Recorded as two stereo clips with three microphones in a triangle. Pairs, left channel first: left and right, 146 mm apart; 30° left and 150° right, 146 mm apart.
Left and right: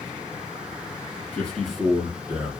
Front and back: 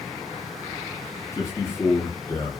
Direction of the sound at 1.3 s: 35° left.